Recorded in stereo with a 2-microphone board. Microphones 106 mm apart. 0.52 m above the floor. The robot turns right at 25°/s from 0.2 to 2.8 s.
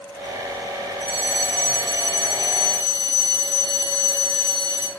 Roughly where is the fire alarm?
Left.